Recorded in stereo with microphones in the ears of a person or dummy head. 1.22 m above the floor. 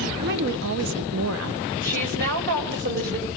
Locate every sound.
0.2 s a woman speaking: 50° right (ahead or behind), 0.9 m; by 1.7 s 75° right (ahead or behind), 2.0 m
1.8 s a woman speaking: 60° right (ahead or behind), 5 m